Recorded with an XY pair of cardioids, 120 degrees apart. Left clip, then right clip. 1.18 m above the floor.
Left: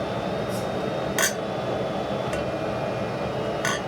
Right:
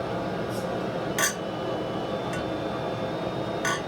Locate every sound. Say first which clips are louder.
0.0 s a fan: left 2 dB; 60° left, 0.9 m
1.2 s a clink: left 2 dB; 25° left, 0.7 m